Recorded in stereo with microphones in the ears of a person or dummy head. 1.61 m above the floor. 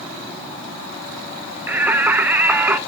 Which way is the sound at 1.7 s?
10° right (ahead or behind).